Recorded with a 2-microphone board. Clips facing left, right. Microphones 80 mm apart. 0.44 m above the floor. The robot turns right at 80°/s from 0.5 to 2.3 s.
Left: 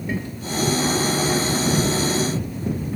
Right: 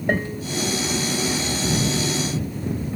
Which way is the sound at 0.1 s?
55° right (ahead or behind).